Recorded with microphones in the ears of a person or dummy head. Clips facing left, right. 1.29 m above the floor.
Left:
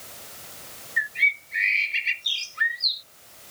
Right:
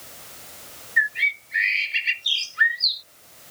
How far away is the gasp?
I don't hear a gasp.